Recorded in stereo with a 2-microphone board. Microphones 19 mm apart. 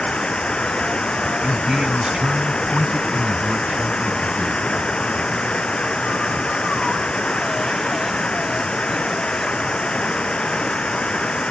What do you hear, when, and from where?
0.0 s running water: 70° left (ahead or behind)
1.4 s a man speaking: 45° right (ahead or behind)